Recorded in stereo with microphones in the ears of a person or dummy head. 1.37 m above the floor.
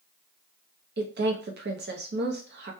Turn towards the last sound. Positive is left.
turn(degrees=-50)  # may be behind; listen again after turning